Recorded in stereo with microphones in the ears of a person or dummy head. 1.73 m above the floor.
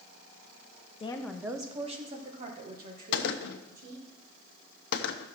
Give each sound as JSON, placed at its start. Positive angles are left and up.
{"t": 1.0, "sound": "a woman speaking", "side_deg": 30, "distance_m": 0.7}
{"t": 3.1, "sound": "a gunshot", "side_deg": 60, "distance_m": 0.8}